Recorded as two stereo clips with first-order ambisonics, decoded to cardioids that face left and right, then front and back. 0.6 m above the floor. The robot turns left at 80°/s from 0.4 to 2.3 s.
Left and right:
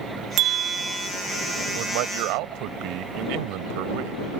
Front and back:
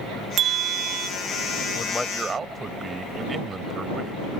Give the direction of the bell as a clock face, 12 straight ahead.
4 o'clock.